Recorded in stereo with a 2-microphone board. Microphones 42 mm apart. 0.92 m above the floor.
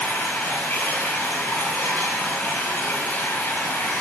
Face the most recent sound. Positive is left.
turn(degrees=65)  # may be behind; listen again after turning